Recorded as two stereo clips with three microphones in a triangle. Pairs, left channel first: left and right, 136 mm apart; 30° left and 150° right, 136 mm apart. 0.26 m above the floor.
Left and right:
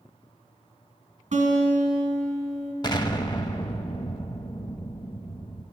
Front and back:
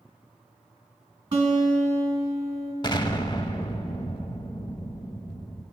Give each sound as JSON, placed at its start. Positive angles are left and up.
{"t": 1.3, "sound": "a guitar", "azimuth_deg": -90, "distance_m": 2.0}
{"t": 2.8, "sound": "an explosion", "azimuth_deg": 60, "distance_m": 0.6}